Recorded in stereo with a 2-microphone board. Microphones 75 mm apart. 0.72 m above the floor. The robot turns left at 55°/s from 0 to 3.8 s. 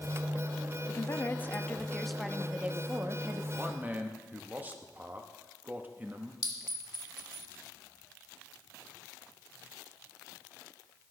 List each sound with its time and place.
0.9 s a woman speaking: 70° left, 0.7 m; by 3.4 s 70° right, 0.7 m
3.5 s a man speaking: 15° right (ahead or behind), 0.9 m; by 6.3 s 25° right (ahead or behind), 0.9 m
6.4 s a clink: 75° left (ahead or behind), 1.3 m